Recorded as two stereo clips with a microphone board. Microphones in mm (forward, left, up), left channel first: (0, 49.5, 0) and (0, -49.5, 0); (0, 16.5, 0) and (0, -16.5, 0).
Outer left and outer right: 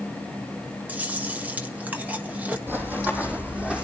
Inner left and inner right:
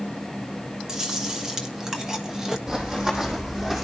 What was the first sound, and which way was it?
Chewing, 15° right (ahead or behind).